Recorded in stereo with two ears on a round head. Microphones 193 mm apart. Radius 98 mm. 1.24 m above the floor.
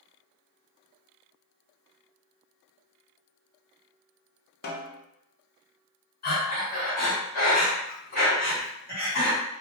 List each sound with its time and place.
4.6 s a snare drum: 45° left (ahead or behind), 0.6 m
6.2 s breathing: 40° left (ahead or behind), 1.2 m